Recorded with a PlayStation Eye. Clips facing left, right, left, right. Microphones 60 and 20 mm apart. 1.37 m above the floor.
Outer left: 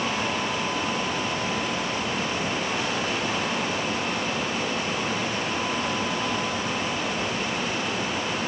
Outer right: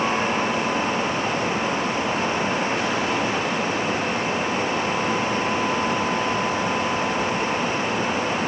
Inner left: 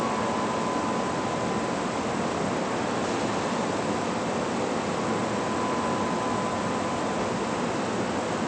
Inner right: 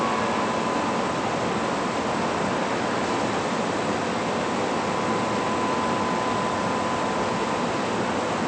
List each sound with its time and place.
Only background noise.